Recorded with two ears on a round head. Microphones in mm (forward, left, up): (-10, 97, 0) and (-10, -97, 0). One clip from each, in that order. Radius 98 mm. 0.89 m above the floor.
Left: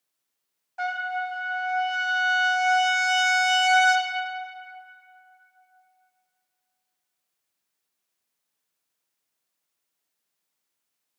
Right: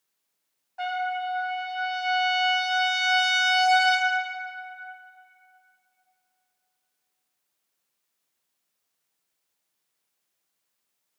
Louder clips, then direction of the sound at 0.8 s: Even; 25° left (ahead or behind).